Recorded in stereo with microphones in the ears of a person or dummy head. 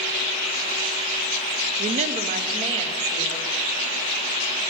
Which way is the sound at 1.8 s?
40° right (ahead or behind).